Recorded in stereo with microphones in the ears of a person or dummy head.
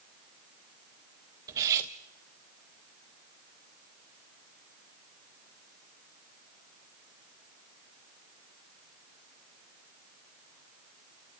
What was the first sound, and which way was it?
Cutlery clinking, 20° right (ahead or behind).